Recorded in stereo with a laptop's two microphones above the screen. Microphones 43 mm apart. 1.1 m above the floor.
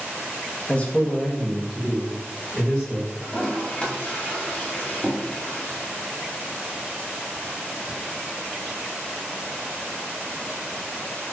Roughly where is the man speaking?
Left.